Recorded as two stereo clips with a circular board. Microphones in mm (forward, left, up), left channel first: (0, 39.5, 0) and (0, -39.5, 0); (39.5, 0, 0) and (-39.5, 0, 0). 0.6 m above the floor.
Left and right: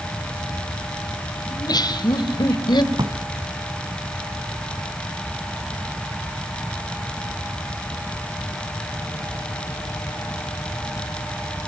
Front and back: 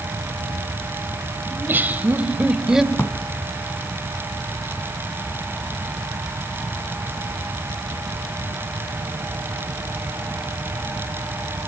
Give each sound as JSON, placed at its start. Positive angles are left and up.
{"t": 1.5, "sound": "laughter", "azimuth_deg": 120, "distance_m": 2.5}
{"t": 2.9, "sound": "a drawer", "azimuth_deg": -60, "distance_m": 1.7}